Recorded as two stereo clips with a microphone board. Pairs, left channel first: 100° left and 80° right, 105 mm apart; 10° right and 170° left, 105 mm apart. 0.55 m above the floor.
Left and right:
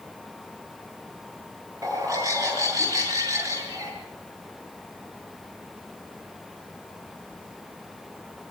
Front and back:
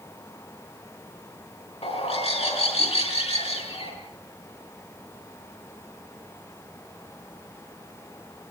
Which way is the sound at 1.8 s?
20° right.